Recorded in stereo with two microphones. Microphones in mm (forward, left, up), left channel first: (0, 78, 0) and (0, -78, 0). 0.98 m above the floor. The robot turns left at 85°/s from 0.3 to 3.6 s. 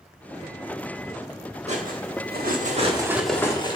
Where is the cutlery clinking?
45° right (ahead or behind), 1.4 m; by 3.8 s 25° left (ahead or behind), 1.4 m.